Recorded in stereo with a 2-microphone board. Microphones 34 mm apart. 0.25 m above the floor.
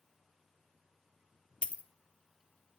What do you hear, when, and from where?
1.6 s a dropped coin: 35° left (ahead or behind), 0.5 m